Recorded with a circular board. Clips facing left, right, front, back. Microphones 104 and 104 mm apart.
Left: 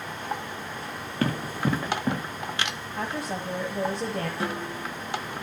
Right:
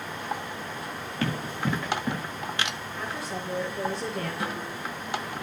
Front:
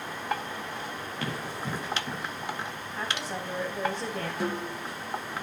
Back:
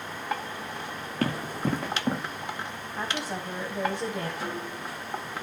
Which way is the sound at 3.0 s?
105° left.